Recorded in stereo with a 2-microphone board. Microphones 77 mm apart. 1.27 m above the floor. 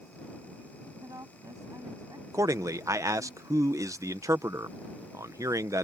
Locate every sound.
1.0 s a woman speaking: 45° right (ahead or behind); by 3.3 s 50° right (ahead or behind)
2.3 s a man speaking: 45° right (ahead or behind)